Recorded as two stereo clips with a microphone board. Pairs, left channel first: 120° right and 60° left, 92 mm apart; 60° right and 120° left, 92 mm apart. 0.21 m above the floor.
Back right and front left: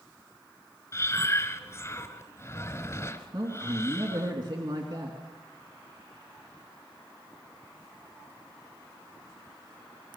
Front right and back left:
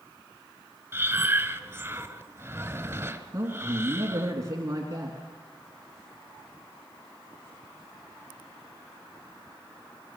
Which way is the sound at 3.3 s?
75° left.